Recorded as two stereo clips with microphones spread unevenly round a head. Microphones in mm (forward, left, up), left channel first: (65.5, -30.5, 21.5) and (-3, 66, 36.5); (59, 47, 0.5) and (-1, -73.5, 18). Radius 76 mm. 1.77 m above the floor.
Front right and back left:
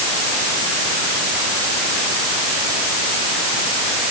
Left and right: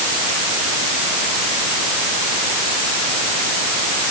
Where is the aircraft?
I don't hear an aircraft.